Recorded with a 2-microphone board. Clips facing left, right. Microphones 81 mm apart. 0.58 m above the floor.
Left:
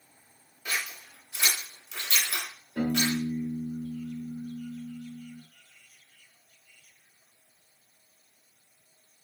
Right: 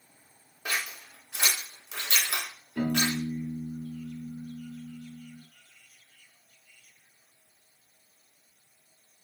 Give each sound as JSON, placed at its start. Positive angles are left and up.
{"t": 0.7, "sound": "scissors", "side_deg": -65, "distance_m": 0.8}
{"t": 2.8, "sound": "a piano", "side_deg": 60, "distance_m": 1.5}